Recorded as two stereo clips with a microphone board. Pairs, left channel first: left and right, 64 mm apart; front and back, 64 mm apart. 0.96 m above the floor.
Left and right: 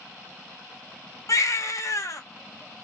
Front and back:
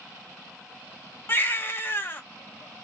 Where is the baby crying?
55° left, 0.9 m.